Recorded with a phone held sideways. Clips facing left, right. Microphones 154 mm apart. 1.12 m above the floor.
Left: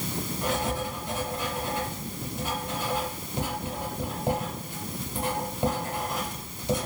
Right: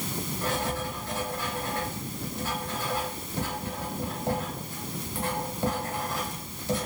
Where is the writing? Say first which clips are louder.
Left 2 dB; 15° left (ahead or behind), 1.0 m.